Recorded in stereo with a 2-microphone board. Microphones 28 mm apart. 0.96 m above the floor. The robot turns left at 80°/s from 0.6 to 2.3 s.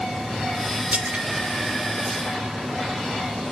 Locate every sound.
0.9 s a splash: 80° right, 1.7 m; by 1.2 s 65° right (ahead or behind), 1.7 m